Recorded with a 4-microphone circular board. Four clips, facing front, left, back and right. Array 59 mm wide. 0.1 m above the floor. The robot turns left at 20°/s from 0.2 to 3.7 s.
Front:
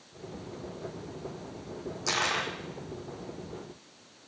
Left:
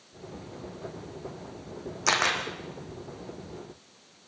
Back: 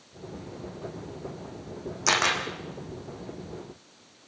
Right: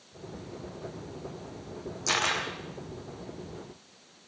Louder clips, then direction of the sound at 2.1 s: Left 3 dB, back 5 dB; 120° left.